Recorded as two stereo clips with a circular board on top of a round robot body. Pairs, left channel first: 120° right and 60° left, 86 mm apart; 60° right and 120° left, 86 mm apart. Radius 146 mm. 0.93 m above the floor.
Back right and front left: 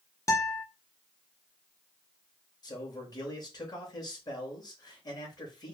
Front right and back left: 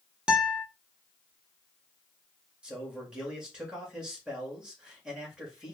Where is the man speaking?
160° right, 1.8 m.